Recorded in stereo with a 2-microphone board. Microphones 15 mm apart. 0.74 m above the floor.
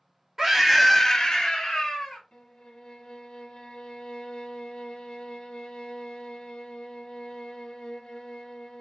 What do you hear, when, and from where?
0.4 s a scream: 15° right (ahead or behind), 1.2 m; by 2.2 s 45° left (ahead or behind), 1.8 m
2.3 s a violin: 45° left (ahead or behind), 0.9 m